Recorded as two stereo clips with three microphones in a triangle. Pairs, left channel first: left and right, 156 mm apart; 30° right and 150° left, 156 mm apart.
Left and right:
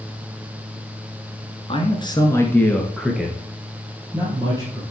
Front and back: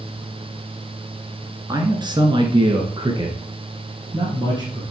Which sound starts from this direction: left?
A man speaking, at 1.7 s.